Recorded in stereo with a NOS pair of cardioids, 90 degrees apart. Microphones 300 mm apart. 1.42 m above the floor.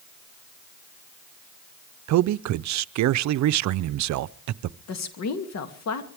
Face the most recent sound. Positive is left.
turn(degrees=60)